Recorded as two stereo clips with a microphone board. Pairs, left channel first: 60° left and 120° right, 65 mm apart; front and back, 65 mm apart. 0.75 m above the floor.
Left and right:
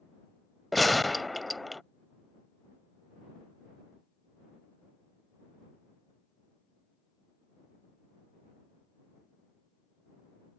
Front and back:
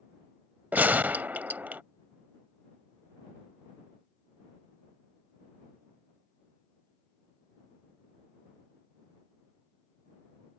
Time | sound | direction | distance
0.7 | a gunshot | 150° left | ?